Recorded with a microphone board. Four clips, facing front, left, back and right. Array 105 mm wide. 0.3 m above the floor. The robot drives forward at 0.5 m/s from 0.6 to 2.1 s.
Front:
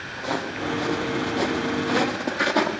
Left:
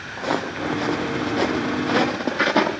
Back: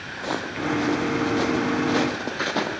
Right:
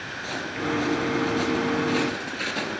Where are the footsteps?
100° left, 3 m; by 2.8 s 85° left, 2.5 m.